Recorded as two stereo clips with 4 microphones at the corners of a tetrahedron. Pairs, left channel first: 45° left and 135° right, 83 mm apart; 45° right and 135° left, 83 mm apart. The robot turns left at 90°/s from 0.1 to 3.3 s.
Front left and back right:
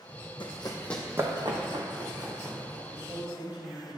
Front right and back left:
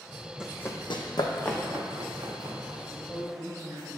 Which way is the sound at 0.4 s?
55° left.